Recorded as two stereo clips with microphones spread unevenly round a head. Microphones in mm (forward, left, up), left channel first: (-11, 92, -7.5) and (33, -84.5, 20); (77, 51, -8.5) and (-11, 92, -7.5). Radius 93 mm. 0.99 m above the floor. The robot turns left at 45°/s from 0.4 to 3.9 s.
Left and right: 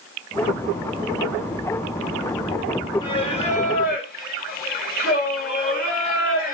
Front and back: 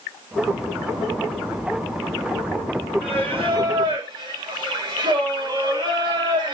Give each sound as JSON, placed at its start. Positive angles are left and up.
{"t": 3.0, "sound": "singing", "azimuth_deg": 165, "distance_m": 1.4}